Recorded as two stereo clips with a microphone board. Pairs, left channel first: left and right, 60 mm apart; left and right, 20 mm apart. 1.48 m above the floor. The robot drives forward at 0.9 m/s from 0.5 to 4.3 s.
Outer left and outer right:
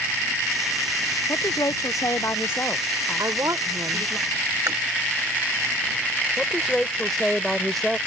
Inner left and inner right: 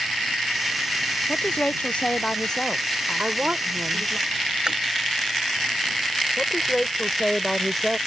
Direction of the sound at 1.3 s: 60° left (ahead or behind).